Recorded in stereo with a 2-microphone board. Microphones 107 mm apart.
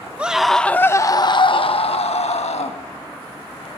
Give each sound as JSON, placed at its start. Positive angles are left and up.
{"t": 0.2, "sound": "a scream", "side_deg": -10, "distance_m": 1.0}